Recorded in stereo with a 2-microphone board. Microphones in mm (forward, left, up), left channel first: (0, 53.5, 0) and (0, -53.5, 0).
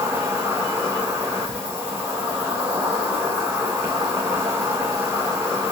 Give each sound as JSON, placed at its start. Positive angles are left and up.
{"t": 0.0, "sound": "an insect", "side_deg": -25, "distance_m": 1.5}